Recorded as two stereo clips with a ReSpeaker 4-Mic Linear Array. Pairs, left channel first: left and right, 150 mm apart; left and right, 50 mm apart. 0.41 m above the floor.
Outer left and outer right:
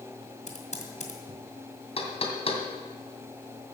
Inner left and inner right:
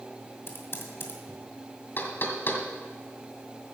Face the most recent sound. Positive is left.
turn(degrees=45)  # may be behind; listen again after turning